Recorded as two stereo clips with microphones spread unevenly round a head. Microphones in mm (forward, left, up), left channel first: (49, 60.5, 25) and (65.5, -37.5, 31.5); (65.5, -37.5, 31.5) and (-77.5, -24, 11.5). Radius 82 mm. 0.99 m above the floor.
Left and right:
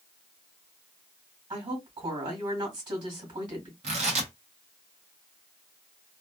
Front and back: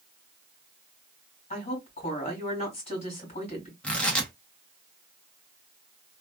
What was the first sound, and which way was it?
A woman speaking, 50° right.